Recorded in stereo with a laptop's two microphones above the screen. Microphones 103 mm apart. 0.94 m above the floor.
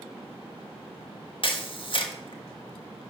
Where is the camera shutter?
55° left (ahead or behind), 1.6 m.